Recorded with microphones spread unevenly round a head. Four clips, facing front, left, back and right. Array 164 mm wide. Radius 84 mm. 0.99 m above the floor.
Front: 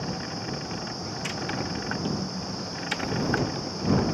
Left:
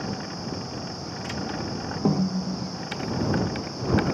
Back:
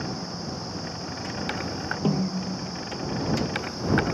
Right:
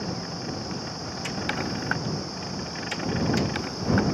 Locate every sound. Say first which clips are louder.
2.0 s a snare drum: left 8 dB, back 5 dB; 115° left